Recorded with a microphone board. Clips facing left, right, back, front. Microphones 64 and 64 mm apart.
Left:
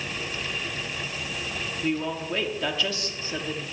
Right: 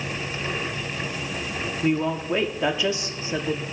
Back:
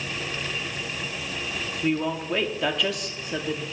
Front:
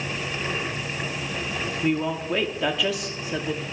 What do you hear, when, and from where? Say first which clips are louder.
1.8 s a woman speaking: right 5 dB, even; 85° right, 0.7 m